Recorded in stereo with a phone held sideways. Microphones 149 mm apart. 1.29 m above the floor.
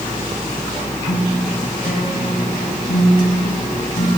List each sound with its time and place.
1.1 s a guitar: 80° left, 2.5 m